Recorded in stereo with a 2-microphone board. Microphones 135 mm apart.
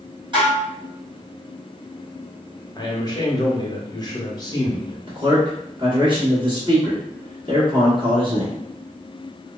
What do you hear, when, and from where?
0.3 s dishes clattering: 35° right (ahead or behind), 1.1 m
2.8 s a man speaking: 30° left (ahead or behind), 0.6 m
5.1 s a man speaking: 35° right (ahead or behind), 1.2 m